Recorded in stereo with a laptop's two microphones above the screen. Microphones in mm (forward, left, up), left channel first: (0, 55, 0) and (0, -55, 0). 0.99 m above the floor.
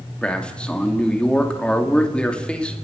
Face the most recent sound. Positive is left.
turn(degrees=10)  # may be behind; listen again after turning